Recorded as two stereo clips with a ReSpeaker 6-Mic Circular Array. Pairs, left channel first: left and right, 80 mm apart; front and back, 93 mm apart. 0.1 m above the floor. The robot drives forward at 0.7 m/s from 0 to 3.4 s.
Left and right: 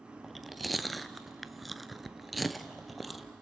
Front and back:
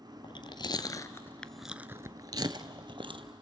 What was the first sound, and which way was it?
Chewing, straight ahead.